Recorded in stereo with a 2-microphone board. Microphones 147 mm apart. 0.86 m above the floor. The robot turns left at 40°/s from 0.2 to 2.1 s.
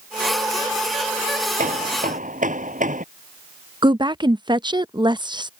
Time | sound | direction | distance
1.6 | hammering | 90° right | ?
3.8 | a woman speaking | 35° right (ahead or behind) | ?